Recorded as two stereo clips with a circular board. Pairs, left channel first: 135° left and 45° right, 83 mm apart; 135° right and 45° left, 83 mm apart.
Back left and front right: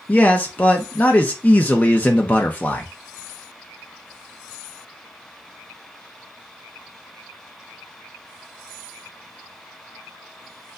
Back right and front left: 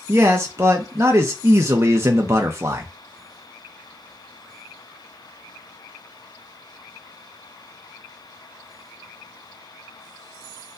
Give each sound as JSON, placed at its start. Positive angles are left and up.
{"t": 0.1, "sound": "a man speaking", "azimuth_deg": 75, "distance_m": 0.7}